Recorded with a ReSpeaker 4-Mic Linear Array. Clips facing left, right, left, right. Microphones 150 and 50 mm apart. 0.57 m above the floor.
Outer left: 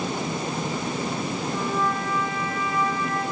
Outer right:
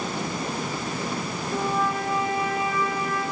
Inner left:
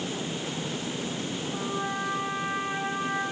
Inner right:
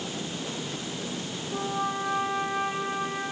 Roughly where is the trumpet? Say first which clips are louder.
Outer right 3 dB, inner right 4 dB; right.